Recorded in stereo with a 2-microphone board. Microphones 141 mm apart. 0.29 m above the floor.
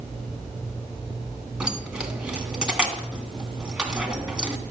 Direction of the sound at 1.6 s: 5° right (ahead or behind).